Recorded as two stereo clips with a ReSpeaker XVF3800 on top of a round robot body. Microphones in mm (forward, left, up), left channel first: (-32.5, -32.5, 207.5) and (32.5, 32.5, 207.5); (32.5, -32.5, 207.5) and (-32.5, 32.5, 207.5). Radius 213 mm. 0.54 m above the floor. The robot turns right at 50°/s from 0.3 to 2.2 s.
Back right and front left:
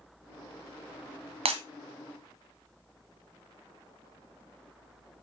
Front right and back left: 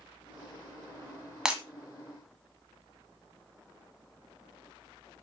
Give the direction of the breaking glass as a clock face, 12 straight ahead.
10 o'clock.